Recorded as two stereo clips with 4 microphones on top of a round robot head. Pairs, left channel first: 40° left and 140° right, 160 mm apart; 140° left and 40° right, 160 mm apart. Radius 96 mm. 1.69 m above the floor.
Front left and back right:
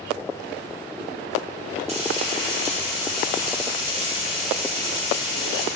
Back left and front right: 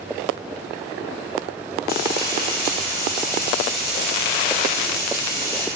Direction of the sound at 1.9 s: 170° left.